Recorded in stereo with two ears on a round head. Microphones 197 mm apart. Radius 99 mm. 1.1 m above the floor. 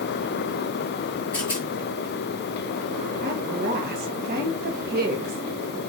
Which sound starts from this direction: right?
A woman speaking, at 3.2 s.